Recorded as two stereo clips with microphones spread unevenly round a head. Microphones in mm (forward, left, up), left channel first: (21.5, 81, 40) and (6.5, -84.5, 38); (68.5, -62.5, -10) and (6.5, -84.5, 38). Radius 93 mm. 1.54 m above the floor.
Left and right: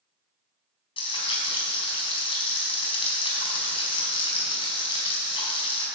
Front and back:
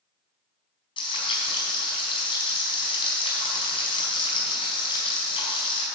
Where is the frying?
30° left, 4.5 m.